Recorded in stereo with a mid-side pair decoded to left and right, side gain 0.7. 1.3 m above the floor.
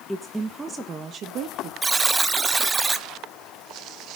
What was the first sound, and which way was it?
A woman speaking, 5° left.